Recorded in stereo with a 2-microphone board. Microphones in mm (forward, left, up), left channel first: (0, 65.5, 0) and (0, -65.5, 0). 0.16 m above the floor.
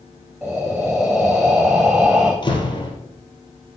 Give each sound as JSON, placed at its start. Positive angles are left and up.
{"t": 0.4, "sound": "breathing", "side_deg": -5, "distance_m": 7.0}
{"t": 2.4, "sound": "a door slam", "side_deg": 35, "distance_m": 3.5}